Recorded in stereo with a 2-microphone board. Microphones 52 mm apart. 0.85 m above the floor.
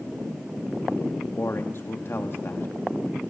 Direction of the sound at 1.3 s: 50° left (ahead or behind).